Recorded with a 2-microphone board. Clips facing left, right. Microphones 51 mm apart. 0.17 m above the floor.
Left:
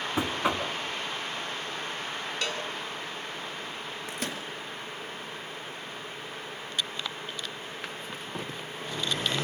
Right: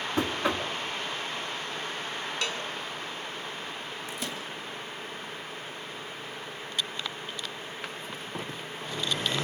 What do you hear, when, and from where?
0.2 s knocking: 15° left (ahead or behind), 1.6 m
2.4 s a cowbell: 5° left (ahead or behind), 1.6 m
4.1 s a microwave: 50° left (ahead or behind), 2 m